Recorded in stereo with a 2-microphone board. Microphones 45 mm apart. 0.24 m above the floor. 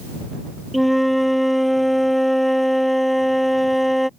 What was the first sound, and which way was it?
A flute, centre (ahead or behind).